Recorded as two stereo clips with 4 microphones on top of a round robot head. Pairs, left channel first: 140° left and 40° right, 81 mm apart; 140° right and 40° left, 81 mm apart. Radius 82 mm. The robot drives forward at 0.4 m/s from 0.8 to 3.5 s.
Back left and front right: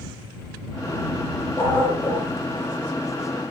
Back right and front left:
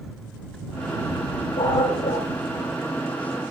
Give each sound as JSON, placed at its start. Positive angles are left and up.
{"t": 1.6, "sound": "a dog barking", "azimuth_deg": -155, "distance_m": 9.0}